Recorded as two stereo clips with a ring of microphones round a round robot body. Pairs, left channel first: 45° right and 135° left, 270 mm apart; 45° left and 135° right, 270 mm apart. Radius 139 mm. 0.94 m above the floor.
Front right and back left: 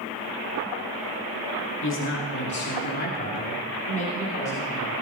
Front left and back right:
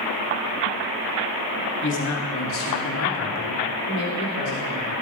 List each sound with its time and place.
1.8 s a man speaking: straight ahead, 2.5 m; by 5.0 s 20° left, 3.5 m